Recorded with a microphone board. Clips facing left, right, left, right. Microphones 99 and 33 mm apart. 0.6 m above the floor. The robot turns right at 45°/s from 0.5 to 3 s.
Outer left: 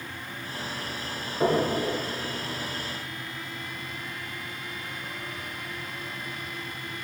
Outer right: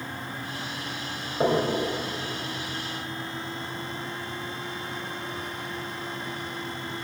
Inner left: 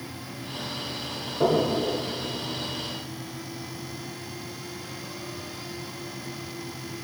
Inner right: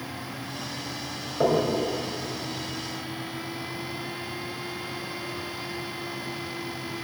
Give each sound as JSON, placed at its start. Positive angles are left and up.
{"t": 1.4, "sound": "knocking", "side_deg": -35, "distance_m": 2.0}